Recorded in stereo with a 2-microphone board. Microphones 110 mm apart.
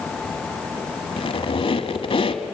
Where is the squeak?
55° left (ahead or behind), 1.2 m.